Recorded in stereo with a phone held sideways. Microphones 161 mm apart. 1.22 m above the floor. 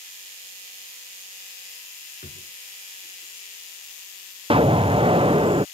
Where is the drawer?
55° left (ahead or behind).